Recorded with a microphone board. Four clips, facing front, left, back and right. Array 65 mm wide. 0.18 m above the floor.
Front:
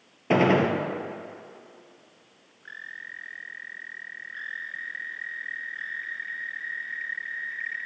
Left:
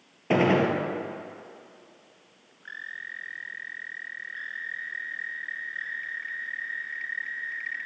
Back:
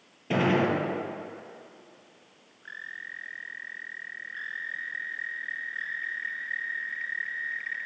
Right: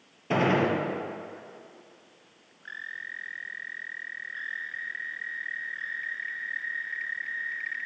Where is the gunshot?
40° left, 1.1 m.